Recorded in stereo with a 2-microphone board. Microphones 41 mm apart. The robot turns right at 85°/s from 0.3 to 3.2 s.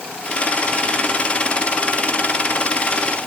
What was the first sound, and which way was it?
Only background noise.